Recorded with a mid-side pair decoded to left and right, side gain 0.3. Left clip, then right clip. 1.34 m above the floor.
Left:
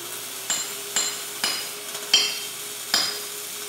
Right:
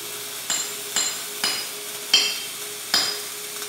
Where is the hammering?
10° left, 1.3 m.